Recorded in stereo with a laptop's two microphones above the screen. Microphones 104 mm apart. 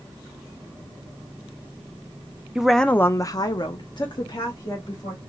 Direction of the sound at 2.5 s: 10° right (ahead or behind).